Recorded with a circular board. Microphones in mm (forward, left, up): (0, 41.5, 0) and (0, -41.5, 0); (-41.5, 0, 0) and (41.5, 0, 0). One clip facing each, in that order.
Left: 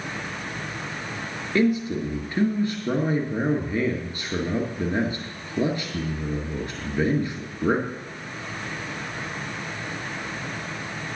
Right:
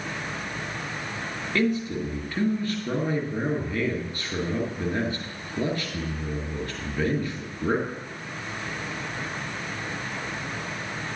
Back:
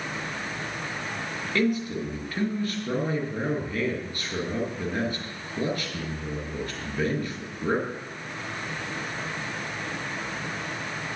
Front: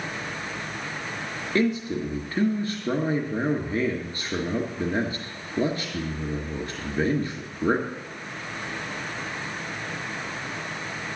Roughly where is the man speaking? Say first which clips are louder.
Left 3 dB, front 2 dB; ahead left.